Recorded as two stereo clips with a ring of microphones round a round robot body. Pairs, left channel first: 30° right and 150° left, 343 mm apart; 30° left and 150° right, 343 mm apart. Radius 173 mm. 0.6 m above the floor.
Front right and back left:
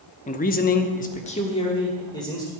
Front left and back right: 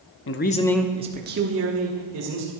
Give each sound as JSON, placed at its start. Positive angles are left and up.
{"t": 0.3, "sound": "a man speaking", "azimuth_deg": 25, "distance_m": 0.8}